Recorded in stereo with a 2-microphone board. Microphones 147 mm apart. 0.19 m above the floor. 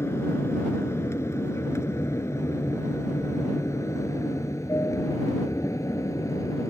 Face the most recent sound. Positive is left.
turn(degrees=20)  # may be behind; listen again after turning